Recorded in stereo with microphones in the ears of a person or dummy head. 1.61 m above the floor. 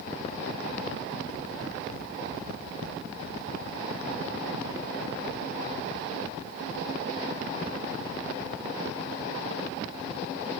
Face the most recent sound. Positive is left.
No sound to turn to.